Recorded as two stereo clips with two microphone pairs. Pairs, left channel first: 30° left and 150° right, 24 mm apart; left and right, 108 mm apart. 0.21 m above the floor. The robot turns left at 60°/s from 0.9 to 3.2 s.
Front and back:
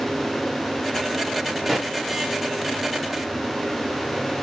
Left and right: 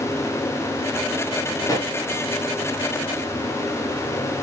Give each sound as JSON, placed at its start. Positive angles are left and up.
{"t": 1.6, "sound": "a pop", "azimuth_deg": 125, "distance_m": 1.2}